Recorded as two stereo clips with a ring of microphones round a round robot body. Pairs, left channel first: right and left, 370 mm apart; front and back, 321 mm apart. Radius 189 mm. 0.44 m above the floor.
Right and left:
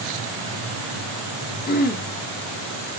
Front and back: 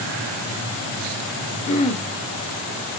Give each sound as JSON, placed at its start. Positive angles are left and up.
{"t": 1.7, "sound": "throat clearing", "azimuth_deg": -50, "distance_m": 1.2}